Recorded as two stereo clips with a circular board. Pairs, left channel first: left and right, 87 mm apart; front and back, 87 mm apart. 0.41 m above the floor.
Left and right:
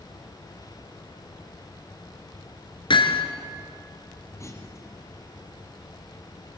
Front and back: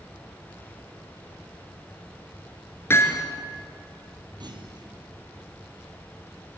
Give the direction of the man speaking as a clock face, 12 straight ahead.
I don't hear a man speaking.